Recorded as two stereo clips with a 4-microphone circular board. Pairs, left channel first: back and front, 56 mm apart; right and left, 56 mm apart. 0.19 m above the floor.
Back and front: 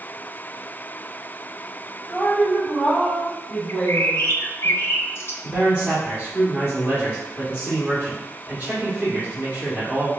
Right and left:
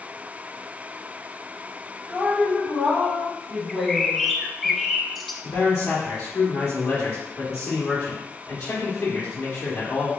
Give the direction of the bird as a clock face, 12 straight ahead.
6 o'clock.